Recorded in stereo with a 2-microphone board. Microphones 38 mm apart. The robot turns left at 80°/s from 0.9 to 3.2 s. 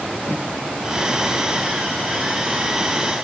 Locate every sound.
0.2 s a whoosh: 70° left (ahead or behind), 6.5 m